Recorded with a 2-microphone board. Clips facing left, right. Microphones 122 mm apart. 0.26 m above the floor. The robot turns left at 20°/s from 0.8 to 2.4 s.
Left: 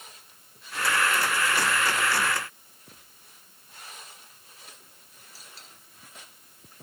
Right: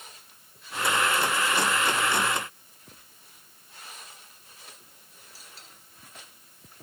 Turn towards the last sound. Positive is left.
No sound to turn to.